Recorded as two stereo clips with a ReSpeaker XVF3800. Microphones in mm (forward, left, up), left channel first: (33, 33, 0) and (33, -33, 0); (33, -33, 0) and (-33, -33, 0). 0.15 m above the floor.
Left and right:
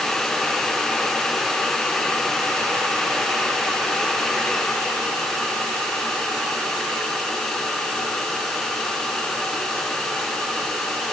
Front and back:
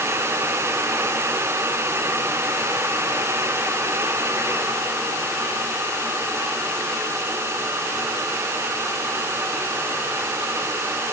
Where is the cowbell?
I don't hear a cowbell.